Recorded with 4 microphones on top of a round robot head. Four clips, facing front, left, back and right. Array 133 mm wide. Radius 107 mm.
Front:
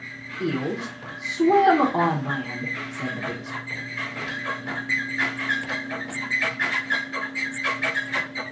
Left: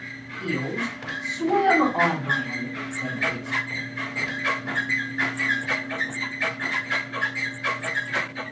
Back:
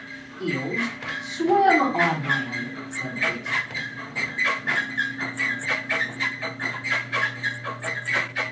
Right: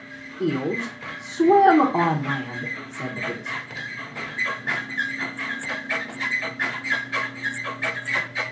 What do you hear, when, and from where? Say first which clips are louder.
0.4 s a woman speaking: right 4 dB, front 1 dB; 65° right, 0.8 m